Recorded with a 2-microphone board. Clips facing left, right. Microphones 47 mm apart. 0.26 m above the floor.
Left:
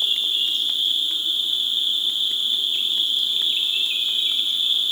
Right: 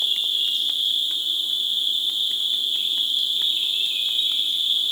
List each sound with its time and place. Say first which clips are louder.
0.0 s an insect: left 1 dB; 50° left (ahead or behind), 2.5 m